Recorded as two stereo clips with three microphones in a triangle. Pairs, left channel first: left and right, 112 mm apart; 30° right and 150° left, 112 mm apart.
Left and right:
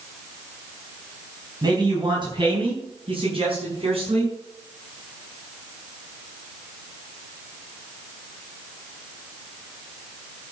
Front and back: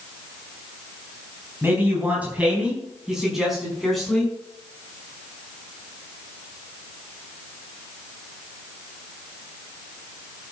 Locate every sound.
1.6 s a man speaking: 140° right, 4 m; by 4.3 s 115° right, 6 m